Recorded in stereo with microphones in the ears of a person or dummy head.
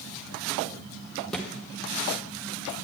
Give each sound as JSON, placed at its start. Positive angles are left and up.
{"t": 1.3, "sound": "a thud", "side_deg": 0, "distance_m": 1.4}